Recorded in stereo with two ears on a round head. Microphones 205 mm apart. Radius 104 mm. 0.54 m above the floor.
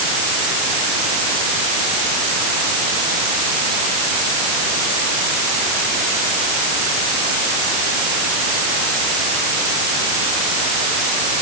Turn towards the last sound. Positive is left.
No sound to turn to.